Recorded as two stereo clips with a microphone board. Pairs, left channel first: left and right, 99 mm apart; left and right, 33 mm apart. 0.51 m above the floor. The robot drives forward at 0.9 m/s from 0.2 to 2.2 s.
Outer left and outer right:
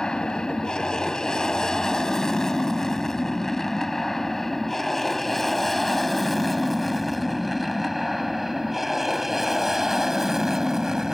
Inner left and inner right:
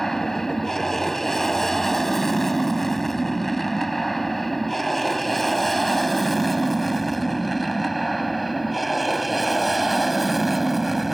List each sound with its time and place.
0.0 s an aircraft: 5° left (ahead or behind); by 11.2 s 5° right (ahead or behind)